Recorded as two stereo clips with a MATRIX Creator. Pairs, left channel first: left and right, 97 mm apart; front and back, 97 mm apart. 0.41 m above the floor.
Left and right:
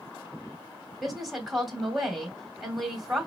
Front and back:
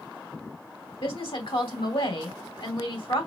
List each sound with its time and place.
1.0 s a woman speaking: straight ahead, 2 m